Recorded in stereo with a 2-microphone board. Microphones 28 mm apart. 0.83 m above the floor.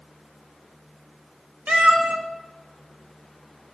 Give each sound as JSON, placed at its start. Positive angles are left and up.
{"t": 1.7, "sound": "a cat meowing", "side_deg": -75, "distance_m": 1.4}